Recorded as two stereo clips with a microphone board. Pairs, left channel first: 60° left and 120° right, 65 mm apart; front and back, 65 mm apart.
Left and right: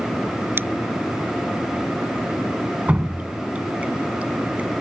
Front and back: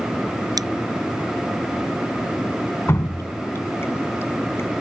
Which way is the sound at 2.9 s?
50° right.